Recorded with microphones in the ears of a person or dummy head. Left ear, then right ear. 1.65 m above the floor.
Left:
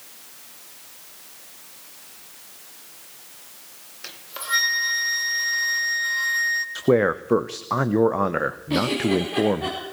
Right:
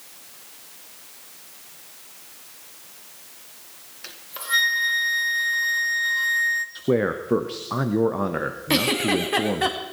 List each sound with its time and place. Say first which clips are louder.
4.0 s a flute: even; 5° left (ahead or behind), 1.4 m
6.8 s a man speaking: left 3 dB; 30° left (ahead or behind), 0.5 m
8.7 s a giggle: right 2 dB; 55° right (ahead or behind), 2.5 m